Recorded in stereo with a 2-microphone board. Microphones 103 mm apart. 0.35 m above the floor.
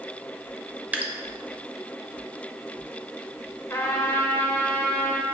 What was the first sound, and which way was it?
Dripping, 15° right (ahead or behind).